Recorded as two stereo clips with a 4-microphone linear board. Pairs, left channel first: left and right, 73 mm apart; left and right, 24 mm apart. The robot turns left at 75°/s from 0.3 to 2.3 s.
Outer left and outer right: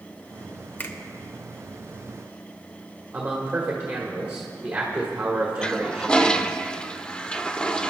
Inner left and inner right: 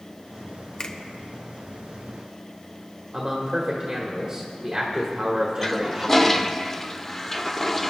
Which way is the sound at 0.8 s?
25° left (ahead or behind).